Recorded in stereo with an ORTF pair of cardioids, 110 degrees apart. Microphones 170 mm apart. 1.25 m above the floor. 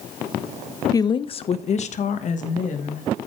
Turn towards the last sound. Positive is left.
turn(degrees=50)